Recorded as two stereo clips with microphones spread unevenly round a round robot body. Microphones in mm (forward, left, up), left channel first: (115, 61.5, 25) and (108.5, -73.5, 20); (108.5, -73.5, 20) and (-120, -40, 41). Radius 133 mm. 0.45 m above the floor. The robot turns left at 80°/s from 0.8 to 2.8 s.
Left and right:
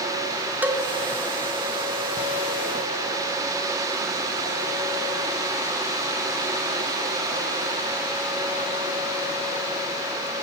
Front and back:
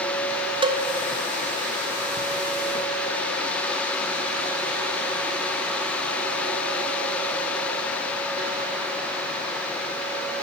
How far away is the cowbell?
About 0.9 m.